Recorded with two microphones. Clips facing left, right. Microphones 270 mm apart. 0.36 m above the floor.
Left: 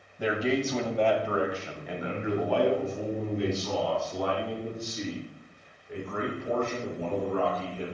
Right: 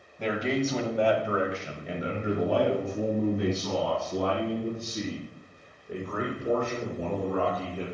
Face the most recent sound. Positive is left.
turn(degrees=-80)